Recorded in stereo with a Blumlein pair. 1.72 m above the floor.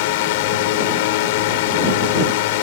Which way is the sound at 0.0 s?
50° left.